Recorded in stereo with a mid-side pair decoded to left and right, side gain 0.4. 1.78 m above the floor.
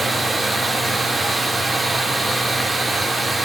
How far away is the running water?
About 3.5 m.